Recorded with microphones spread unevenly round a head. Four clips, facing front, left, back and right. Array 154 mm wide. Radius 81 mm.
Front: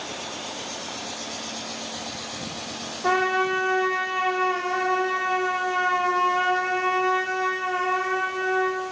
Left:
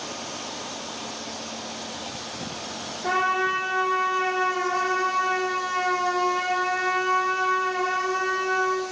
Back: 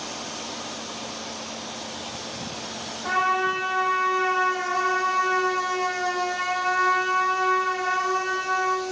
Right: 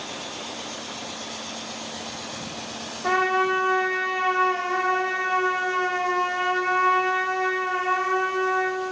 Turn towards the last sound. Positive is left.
turn(degrees=0)